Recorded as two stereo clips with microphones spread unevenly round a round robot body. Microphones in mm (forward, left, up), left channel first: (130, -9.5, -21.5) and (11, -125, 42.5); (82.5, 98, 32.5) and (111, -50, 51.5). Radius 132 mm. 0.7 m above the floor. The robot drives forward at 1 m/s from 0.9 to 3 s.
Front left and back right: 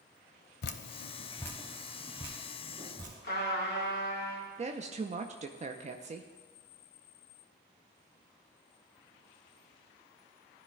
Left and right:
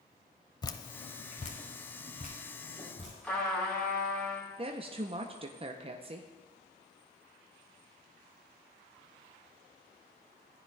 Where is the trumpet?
20° left, 3 m.